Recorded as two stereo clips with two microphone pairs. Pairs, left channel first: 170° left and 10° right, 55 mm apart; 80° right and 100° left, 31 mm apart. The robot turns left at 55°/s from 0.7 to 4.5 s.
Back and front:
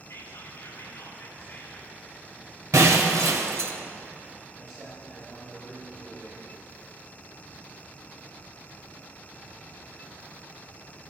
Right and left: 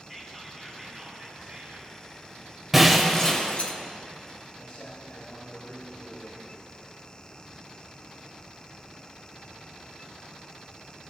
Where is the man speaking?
110° right, 3 m.